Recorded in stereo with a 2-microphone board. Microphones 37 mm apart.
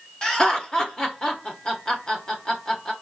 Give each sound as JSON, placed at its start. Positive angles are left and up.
{"t": 0.2, "sound": "laughter", "side_deg": 20, "distance_m": 0.8}